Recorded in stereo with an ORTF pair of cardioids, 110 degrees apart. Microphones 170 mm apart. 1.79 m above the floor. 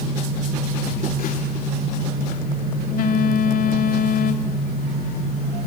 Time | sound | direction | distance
0.8 | a phone buzzing | 65° left | 3 m